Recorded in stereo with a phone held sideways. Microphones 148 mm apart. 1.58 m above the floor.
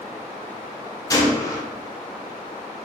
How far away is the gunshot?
About 0.6 m.